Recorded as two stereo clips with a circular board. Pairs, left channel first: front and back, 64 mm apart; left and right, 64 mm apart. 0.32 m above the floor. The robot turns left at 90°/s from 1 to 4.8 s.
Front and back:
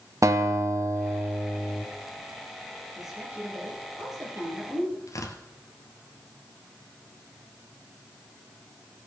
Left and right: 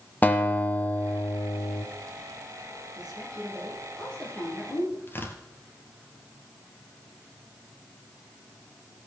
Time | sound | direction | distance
0.2 | a guitar | 150° left | 1.4 m
3.0 | a woman speaking | 85° right | 6 m
5.1 | tearing paper | 35° left | 2 m